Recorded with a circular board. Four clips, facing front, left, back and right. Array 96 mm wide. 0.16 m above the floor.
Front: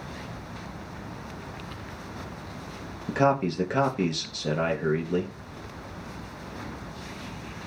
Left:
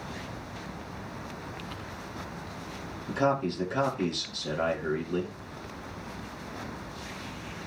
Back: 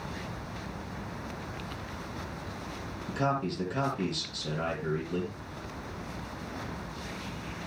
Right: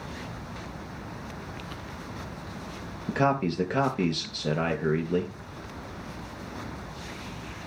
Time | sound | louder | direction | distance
3.1 | a man speaking | right 2 dB, front 7 dB | 50° right | 3.5 m